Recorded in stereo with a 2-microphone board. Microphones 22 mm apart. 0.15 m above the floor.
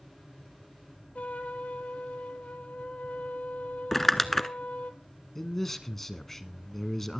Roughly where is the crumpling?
Centre.